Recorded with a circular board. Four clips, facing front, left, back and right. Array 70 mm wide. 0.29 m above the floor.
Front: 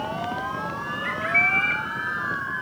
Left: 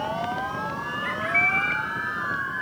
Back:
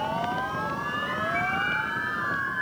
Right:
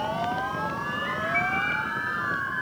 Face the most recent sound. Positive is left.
turn(degrees=30)